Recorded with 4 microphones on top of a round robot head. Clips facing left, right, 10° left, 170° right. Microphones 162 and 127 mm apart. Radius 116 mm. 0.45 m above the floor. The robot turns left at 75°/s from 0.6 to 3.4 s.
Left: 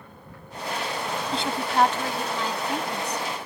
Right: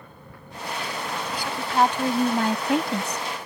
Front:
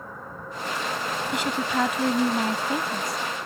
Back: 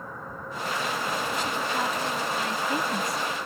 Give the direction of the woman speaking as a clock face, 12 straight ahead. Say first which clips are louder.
Even, front 3 dB; 11 o'clock.